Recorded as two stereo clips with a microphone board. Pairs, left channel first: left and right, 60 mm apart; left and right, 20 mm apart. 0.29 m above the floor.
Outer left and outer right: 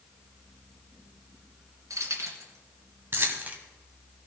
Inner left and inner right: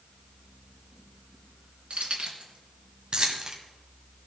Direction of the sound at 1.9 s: 65° right (ahead or behind).